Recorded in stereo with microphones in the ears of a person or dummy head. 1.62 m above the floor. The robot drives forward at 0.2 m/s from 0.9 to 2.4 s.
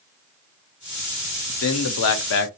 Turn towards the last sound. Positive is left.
turn(degrees=60)  # may be behind; listen again after turning